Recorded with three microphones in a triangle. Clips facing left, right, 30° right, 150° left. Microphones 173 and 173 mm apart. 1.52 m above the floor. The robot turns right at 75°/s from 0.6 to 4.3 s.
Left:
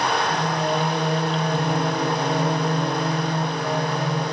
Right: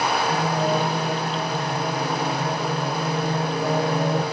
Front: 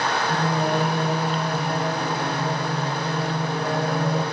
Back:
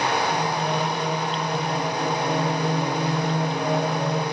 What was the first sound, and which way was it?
Singing, 15° right.